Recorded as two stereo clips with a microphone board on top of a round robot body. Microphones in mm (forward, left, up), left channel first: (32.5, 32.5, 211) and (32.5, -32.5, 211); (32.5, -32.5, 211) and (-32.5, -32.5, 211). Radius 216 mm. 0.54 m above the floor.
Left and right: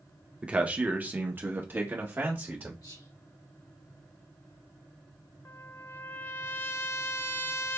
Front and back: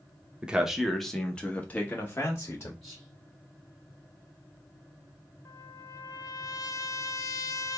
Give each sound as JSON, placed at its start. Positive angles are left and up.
{"t": 0.4, "sound": "a man speaking", "azimuth_deg": -130, "distance_m": 1.1}
{"t": 2.8, "sound": "whispering", "azimuth_deg": 95, "distance_m": 2.5}
{"t": 5.5, "sound": "a trumpet", "azimuth_deg": 35, "distance_m": 0.6}